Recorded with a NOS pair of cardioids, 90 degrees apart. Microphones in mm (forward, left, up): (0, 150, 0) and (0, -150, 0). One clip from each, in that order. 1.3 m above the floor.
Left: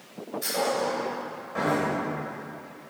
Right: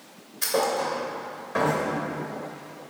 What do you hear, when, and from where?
0.4 s a thud: 70° right, 3 m